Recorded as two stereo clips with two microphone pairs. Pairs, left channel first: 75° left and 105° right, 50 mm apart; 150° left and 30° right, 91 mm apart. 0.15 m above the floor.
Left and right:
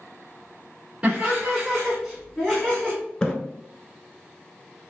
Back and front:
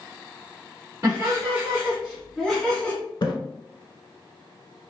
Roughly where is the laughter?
Ahead right.